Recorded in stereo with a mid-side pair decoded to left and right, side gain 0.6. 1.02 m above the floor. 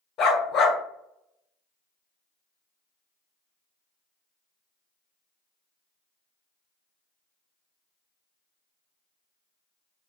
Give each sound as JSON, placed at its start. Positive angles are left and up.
{"t": 0.2, "sound": "a dog barking", "azimuth_deg": 65, "distance_m": 1.7}